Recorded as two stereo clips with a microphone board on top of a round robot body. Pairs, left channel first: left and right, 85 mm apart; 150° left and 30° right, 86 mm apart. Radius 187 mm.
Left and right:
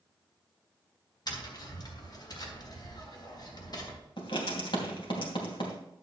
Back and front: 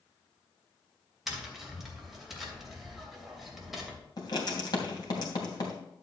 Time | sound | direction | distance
1.3 | tapping | 55° left | 2.5 m
4.2 | writing | 110° left | 3 m